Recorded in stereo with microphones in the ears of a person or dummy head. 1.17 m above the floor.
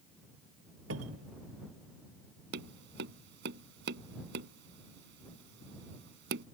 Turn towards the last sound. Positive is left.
turn(degrees=-65)  # may be behind; listen again after turning